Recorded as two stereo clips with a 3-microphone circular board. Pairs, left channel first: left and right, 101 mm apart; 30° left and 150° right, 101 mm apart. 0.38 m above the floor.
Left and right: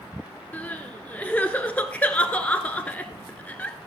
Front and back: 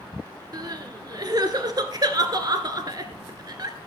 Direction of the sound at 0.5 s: 165° left.